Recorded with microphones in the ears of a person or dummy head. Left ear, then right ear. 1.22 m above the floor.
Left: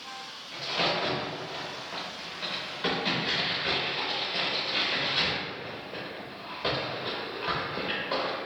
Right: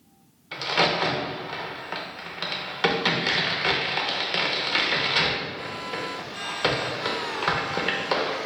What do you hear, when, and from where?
0.5 s a crack: 40° right (ahead or behind), 0.7 m